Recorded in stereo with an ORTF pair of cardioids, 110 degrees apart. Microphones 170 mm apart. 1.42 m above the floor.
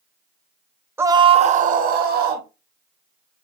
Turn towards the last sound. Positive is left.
turn(degrees=-70)